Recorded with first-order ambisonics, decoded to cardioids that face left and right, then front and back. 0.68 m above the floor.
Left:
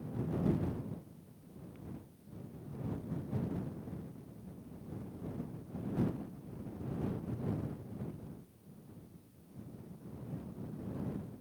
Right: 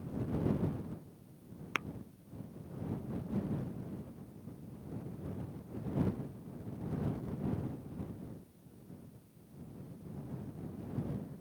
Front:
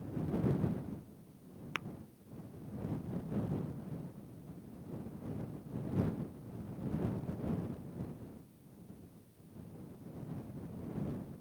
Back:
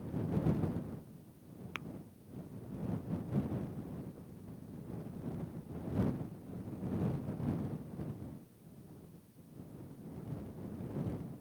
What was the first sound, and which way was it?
Tapping, 75° right.